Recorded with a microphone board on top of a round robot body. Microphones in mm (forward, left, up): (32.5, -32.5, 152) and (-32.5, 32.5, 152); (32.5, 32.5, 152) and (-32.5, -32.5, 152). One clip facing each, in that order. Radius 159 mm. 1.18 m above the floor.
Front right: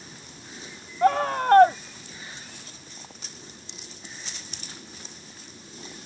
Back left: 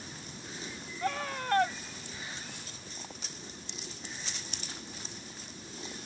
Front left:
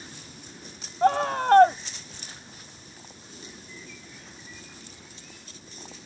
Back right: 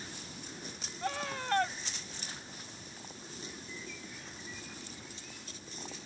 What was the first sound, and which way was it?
A scream, straight ahead.